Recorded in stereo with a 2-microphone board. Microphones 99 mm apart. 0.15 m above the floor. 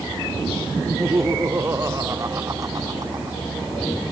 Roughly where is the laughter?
Right.